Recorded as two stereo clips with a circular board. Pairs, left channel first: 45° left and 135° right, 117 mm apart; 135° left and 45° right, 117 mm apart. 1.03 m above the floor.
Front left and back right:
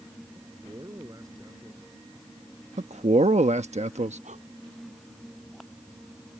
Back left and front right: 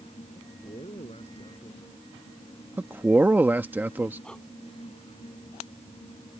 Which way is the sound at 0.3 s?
165° left.